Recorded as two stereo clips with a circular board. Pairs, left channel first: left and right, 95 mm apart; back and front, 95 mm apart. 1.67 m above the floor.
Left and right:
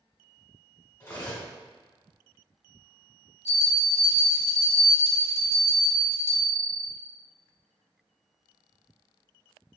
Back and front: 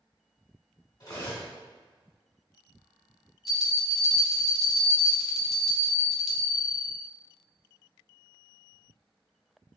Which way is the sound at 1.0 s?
150° left.